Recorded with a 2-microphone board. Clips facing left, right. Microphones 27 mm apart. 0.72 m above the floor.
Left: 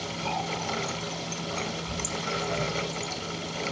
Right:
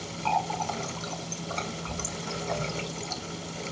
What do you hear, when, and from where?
0.2 s a running tap: 30° right (ahead or behind), 1.3 m